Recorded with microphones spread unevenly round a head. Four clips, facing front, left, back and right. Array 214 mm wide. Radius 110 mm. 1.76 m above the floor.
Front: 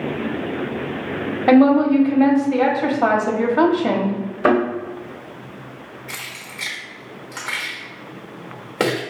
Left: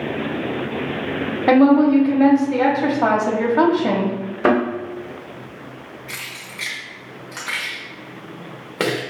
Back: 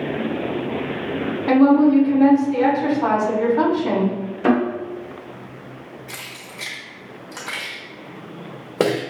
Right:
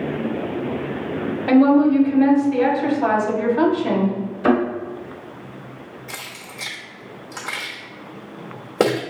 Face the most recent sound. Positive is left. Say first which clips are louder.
# even, front 1 dB
turn(degrees=-130)